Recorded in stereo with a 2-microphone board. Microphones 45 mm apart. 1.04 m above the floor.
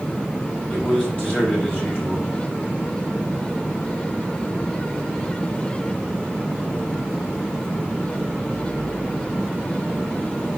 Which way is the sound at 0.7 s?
40° left (ahead or behind).